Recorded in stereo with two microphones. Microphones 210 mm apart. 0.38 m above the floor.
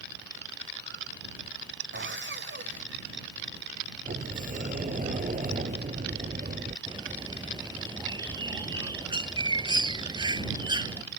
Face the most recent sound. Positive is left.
turn(degrees=-20)  # may be behind; listen again after turning